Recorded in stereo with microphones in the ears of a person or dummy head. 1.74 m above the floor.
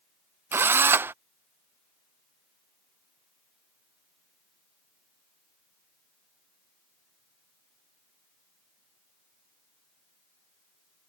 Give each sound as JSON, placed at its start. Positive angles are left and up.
{"t": 0.5, "sound": "a drill", "side_deg": -15}